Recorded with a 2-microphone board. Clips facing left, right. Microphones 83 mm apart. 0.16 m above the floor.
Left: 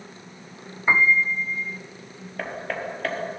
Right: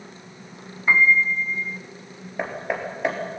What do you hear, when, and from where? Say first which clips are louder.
0.9 s a piano: right 1 dB; 25° left (ahead or behind), 0.7 m
2.4 s hammering: right 3 dB; 15° right (ahead or behind), 2.5 m